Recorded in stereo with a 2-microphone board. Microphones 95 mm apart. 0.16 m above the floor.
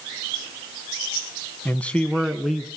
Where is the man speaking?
20° left (ahead or behind), 1.0 m; by 2.7 s 10° right (ahead or behind), 1.5 m.